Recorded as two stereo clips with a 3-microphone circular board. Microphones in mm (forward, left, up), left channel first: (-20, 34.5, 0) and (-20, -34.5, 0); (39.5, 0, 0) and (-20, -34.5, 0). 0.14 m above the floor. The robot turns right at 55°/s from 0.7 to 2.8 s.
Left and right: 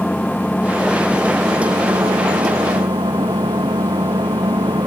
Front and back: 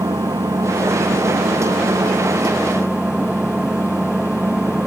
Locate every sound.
0.0 s an engine running: 170° left; by 4.9 s 75° right